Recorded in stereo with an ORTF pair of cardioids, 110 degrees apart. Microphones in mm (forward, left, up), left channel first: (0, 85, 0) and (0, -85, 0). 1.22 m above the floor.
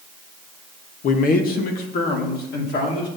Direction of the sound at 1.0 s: 55° left.